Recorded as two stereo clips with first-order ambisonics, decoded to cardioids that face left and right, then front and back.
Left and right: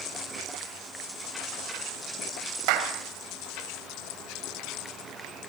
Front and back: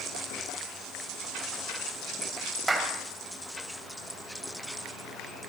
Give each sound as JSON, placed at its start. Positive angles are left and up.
{"t": 2.7, "sound": "a clap", "azimuth_deg": -95, "distance_m": 4.0}